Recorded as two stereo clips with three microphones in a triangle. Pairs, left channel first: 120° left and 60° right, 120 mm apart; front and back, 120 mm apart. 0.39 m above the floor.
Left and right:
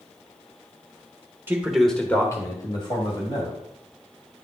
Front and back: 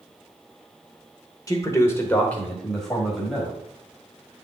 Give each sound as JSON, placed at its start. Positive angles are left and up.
{"t": 1.5, "sound": "a man speaking", "azimuth_deg": -10, "distance_m": 1.2}